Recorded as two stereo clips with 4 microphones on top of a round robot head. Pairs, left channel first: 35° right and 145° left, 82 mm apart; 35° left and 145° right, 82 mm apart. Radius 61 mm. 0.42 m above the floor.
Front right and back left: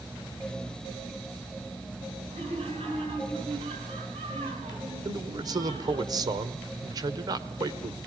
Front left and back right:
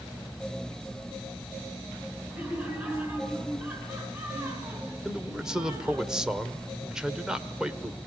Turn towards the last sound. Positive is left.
turn(degrees=135)